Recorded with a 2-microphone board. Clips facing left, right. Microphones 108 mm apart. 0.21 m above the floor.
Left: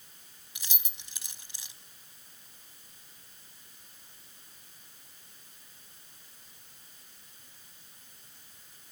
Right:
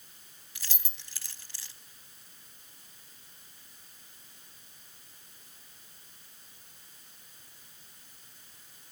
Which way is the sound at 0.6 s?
20° left (ahead or behind).